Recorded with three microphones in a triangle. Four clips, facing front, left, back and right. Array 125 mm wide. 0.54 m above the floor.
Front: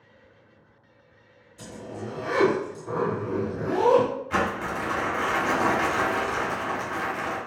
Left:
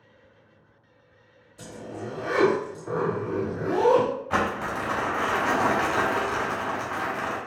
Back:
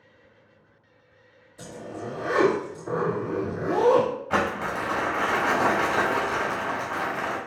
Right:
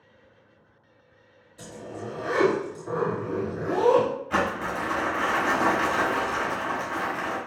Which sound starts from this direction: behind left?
Crumpling, at 4.3 s.